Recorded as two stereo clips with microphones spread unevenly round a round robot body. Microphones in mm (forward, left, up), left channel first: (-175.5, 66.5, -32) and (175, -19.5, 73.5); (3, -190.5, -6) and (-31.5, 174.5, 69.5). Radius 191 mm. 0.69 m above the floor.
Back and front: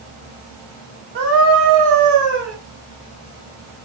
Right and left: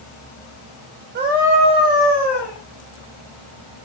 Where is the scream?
25° left, 3.5 m; by 2.5 s 5° left, 4.5 m.